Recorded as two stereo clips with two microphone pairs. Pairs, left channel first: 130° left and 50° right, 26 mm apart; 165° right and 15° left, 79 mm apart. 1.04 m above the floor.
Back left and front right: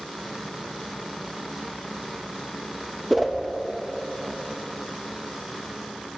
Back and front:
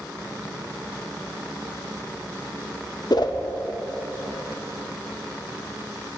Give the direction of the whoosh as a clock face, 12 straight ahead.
5 o'clock.